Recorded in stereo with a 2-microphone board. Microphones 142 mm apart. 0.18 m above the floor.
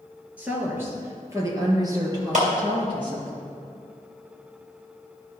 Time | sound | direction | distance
0.4 | a woman speaking | 10° right (ahead or behind) | 2.5 m
2.3 | a clap | 60° right (ahead or behind) | 3 m